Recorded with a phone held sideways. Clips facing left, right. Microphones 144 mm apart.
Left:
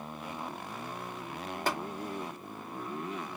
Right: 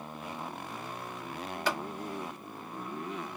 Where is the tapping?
45° left (ahead or behind), 2 m.